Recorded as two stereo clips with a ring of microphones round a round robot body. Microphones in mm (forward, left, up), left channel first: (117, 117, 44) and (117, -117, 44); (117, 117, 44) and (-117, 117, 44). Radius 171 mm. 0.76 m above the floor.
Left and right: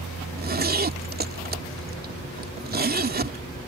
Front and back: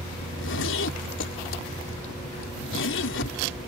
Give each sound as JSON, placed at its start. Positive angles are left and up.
{"t": 0.2, "sound": "a zipper", "azimuth_deg": -45}